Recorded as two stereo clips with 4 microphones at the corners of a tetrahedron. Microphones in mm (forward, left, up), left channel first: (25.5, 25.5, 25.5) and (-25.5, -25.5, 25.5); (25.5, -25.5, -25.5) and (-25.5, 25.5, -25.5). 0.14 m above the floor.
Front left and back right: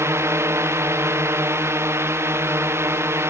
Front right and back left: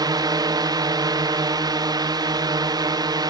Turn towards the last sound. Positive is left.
turn(degrees=170)